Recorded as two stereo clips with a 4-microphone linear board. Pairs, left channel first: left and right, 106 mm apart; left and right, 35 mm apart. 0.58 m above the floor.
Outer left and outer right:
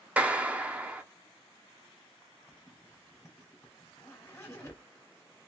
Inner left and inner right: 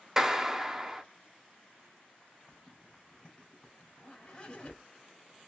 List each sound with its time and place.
0.2 s a clap: 15° right (ahead or behind), 0.6 m
2.5 s a zipper: 25° left (ahead or behind), 2.5 m